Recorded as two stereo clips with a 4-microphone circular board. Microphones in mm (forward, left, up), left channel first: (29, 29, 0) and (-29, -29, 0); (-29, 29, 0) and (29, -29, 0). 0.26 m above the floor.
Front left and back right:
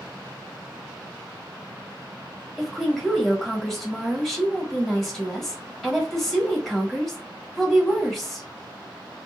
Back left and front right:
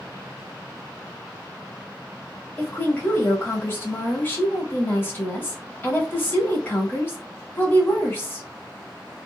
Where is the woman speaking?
130° left, 1.1 m.